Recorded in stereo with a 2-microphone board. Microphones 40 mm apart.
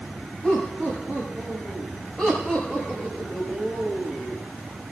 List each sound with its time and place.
0.4 s laughter: 30° left (ahead or behind), 7 m; by 4.4 s 10° left (ahead or behind), 7 m